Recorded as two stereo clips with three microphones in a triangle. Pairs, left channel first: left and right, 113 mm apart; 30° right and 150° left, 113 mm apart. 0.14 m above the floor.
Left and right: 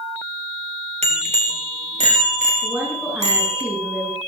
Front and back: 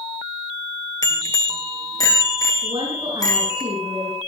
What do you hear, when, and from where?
1.0 s a bicycle bell: 90° right, 2.5 m; by 3.6 s 85° right, 5 m
2.6 s a woman speaking: 165° right, 10 m